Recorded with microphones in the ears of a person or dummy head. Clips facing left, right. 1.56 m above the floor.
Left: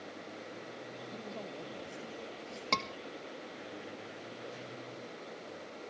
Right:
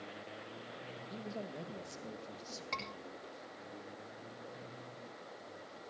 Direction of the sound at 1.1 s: 10° right (ahead or behind).